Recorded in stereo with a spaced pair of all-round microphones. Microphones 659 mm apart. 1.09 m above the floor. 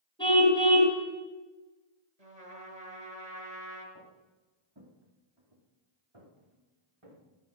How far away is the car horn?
About 5 m.